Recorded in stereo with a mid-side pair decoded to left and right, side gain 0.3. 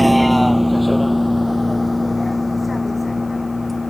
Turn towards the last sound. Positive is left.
turn(degrees=25)